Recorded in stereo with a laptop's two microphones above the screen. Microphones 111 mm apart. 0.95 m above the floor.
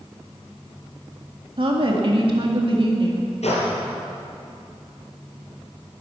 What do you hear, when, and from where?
1.6 s a woman speaking: 50° right (ahead or behind), 2 m
3.4 s a gunshot: 80° left, 4.5 m